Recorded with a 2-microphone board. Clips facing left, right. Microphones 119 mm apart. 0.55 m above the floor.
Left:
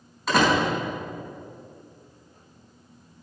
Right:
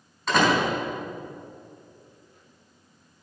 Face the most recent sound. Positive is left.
turn(degrees=0)  # may be behind; listen again after turning